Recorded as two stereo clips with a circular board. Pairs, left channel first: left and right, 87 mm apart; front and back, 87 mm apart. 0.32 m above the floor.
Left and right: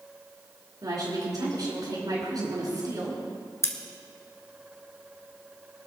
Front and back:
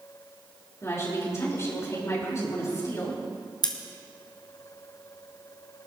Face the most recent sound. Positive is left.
turn(degrees=35)